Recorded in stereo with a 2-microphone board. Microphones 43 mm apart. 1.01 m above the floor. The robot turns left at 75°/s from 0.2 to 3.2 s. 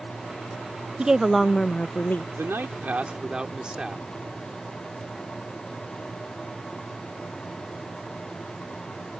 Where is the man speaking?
95° right; by 4.1 s 155° right.